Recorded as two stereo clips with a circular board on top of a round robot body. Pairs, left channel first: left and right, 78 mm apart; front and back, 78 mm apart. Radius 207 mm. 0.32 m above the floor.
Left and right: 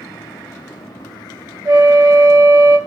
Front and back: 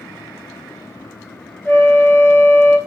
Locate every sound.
1.6 s a flute: 50° right, 1.6 m